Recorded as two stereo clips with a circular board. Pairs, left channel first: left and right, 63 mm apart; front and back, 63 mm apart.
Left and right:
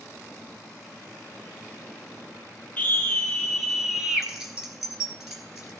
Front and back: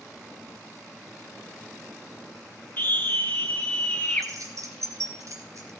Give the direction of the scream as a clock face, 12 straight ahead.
11 o'clock.